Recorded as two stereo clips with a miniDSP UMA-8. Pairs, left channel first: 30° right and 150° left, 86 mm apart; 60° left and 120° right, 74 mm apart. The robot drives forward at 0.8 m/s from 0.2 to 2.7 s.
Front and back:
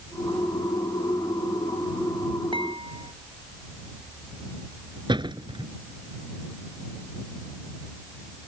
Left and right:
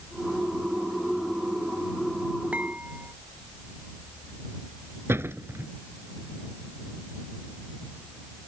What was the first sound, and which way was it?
Dishes clattering, 170° left.